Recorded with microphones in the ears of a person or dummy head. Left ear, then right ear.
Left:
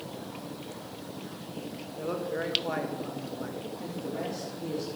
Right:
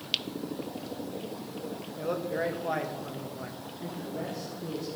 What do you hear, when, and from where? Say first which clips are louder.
2.0 s a man speaking: right 1 dB; centre (ahead or behind), 1.6 m
3.8 s a man speaking: even; 75° left (ahead or behind), 3 m